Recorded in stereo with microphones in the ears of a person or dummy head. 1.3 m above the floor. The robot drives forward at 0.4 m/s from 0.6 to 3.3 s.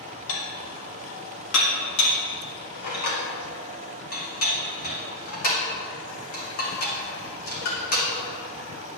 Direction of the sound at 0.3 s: 80° left.